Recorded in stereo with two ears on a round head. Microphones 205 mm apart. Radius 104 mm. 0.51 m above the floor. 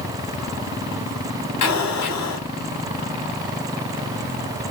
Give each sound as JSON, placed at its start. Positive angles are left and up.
{"t": 1.6, "sound": "an explosion", "side_deg": 85, "distance_m": 1.5}